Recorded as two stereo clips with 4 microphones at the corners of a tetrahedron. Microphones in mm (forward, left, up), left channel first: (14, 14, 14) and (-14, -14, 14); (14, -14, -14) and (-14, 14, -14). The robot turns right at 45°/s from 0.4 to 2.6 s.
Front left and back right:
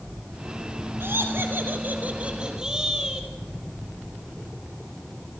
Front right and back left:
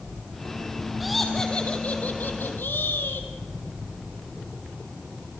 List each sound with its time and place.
1.0 s laughter: 135° right, 3.5 m; by 3.3 s 65° right, 3.5 m